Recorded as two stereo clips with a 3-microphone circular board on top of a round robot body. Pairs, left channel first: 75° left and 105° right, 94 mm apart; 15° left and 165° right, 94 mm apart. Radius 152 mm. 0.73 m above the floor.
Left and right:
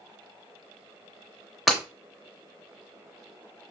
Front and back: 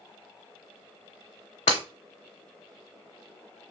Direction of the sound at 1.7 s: 15° right.